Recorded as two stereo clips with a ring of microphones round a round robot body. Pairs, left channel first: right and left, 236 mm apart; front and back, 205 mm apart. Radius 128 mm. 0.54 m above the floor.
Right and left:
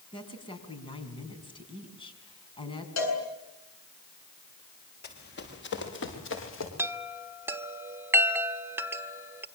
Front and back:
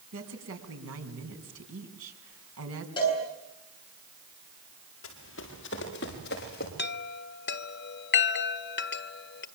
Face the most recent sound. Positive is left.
turn(degrees=10)